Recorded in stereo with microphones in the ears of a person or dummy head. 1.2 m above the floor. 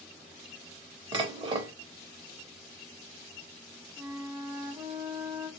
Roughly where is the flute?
Centre.